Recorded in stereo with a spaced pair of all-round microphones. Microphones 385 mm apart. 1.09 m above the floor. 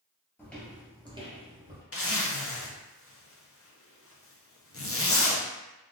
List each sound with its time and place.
0.4 s footsteps: 5° left (ahead or behind), 1.1 m; by 1.8 s 25° right (ahead or behind), 1.3 m
1.9 s a zipper: 35° left (ahead or behind), 0.5 m